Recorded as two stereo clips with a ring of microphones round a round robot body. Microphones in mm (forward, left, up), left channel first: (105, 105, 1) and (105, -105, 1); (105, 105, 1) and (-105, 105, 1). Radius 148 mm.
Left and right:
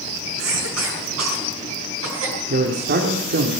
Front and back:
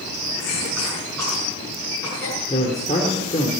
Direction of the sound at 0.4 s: 85° right.